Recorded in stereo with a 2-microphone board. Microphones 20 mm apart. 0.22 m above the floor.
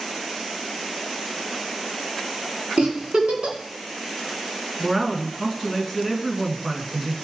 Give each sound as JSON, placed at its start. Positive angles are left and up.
{"t": 2.8, "sound": "a giggle", "side_deg": -60, "distance_m": 1.9}
{"t": 4.8, "sound": "a man speaking", "side_deg": -15, "distance_m": 3.0}